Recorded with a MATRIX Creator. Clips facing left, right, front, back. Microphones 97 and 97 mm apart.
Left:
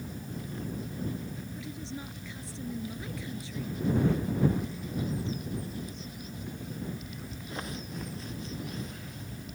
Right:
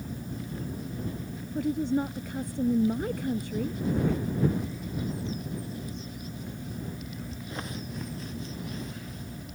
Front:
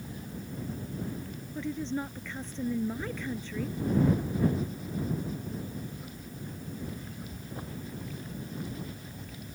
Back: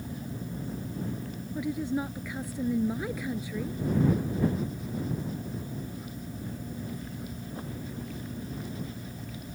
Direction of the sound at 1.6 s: 105° right.